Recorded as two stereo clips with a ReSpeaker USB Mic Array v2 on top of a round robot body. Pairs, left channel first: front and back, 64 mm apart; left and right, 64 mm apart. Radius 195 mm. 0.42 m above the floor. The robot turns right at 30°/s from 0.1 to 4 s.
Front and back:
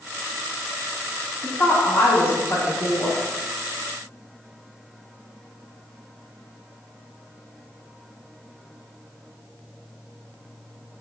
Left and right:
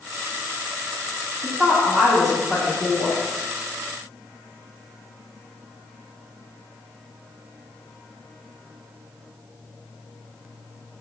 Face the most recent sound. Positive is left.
turn(degrees=45)